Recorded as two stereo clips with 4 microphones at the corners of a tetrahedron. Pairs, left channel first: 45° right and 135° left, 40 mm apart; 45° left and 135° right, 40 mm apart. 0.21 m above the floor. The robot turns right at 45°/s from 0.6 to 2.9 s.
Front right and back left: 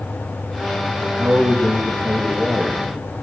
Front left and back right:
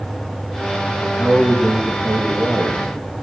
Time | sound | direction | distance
1.0 | a man speaking | 120° left | 6 m